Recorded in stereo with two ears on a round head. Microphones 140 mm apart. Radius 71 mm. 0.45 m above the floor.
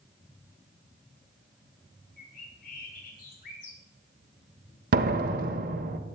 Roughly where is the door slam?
Right.